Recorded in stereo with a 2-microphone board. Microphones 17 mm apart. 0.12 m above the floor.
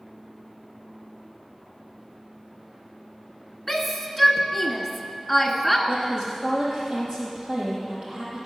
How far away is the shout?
About 1.1 m.